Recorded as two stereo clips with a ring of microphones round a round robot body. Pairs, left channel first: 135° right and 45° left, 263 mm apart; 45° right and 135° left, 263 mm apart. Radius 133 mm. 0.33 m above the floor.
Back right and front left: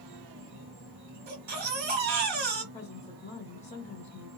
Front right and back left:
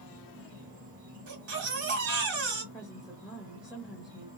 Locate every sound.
0.0 s an insect: 65° left, 2 m
1.3 s a baby crying: 95° left, 1.7 m
2.7 s a woman speaking: 145° right, 1.0 m